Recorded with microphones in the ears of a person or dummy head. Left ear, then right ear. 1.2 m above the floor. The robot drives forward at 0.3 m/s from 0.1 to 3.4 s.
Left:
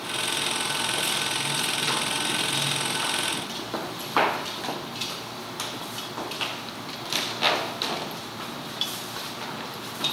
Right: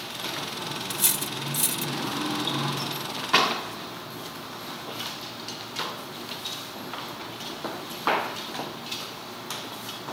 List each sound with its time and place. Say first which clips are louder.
0.9 s cutlery clinking: left 4 dB; 55° right (ahead or behind); by 1.9 s 50° right (ahead or behind)